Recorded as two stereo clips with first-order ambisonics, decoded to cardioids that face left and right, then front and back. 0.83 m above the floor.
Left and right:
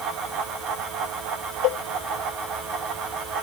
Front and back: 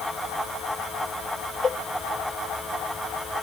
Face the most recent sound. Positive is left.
turn(degrees=70)